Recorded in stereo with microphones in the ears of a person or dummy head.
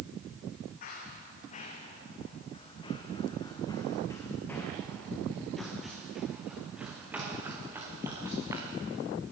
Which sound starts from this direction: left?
Running footsteps, at 0.8 s.